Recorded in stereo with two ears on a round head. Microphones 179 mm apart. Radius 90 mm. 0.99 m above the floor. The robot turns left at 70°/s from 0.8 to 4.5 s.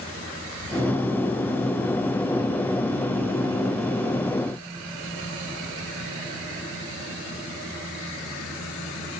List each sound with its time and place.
Only background noise.